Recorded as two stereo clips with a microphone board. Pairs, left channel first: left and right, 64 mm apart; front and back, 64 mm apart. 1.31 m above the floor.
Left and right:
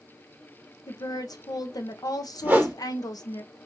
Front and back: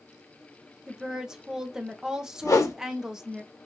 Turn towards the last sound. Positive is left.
turn(degrees=-30)